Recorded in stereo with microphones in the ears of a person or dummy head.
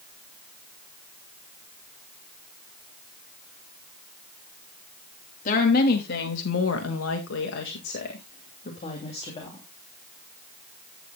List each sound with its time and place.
5.5 s a woman speaking: 45° left (ahead or behind), 2.5 m; by 9.6 s 25° left (ahead or behind), 3 m